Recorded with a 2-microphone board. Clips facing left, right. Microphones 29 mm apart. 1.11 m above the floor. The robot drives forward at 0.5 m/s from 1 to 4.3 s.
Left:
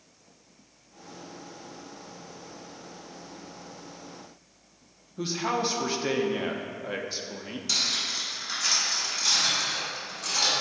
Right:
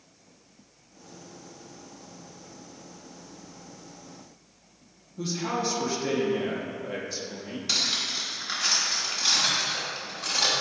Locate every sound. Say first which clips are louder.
5.2 s a man speaking: left 1 dB; 25° left (ahead or behind), 0.7 m
7.7 s cutlery clinking: right 1 dB; 20° right (ahead or behind), 1.5 m